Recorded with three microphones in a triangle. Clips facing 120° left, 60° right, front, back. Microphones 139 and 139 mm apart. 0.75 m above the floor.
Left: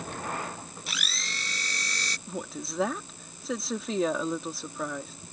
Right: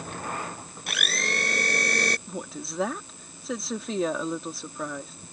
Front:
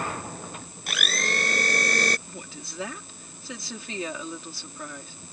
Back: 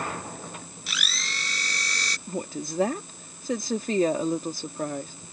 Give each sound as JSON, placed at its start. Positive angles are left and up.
{"t": 0.9, "sound": "a blender", "azimuth_deg": -35}
{"t": 2.3, "sound": "a woman speaking", "azimuth_deg": -150}